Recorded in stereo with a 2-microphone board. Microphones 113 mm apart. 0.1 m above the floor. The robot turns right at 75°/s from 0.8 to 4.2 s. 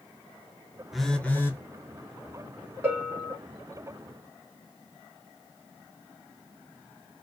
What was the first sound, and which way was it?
A phone buzzing, 5° right.